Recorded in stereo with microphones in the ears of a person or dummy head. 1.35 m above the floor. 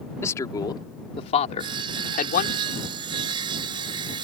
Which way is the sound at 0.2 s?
20° left (ahead or behind).